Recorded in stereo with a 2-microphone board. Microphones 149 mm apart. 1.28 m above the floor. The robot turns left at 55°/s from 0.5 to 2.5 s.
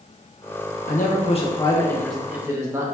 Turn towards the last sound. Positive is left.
turn(degrees=-20)